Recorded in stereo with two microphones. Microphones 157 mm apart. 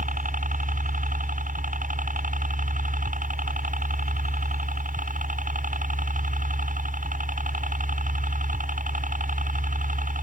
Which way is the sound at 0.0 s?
60° right (ahead or behind).